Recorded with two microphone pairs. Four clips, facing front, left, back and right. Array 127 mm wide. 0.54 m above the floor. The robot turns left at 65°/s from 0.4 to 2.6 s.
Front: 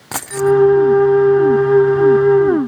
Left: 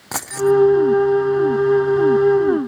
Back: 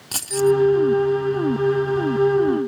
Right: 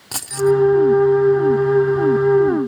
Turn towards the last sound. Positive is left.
turn(degrees=-110)